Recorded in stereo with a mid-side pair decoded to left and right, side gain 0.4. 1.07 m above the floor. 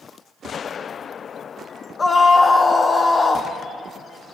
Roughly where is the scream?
Ahead left.